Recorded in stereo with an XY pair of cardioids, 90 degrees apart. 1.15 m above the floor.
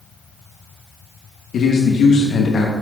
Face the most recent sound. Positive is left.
turn(degrees=70)